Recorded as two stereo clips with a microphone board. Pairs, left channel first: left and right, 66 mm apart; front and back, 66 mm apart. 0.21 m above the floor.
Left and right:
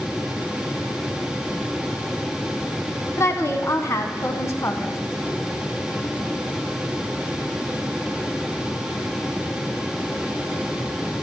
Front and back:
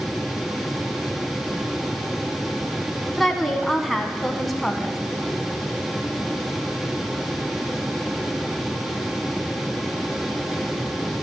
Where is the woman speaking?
85° left, 1.4 m.